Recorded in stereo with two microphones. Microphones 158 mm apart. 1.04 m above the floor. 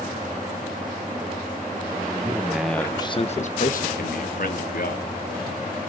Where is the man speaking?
25° right (ahead or behind), 1.4 m; by 5.1 s 75° left (ahead or behind), 3 m.